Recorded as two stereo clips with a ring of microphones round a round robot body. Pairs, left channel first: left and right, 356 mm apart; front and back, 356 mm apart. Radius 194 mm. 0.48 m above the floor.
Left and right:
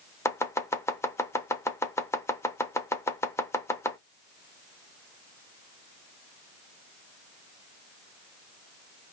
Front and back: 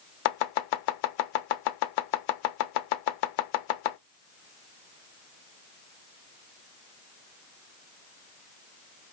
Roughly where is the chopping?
Ahead.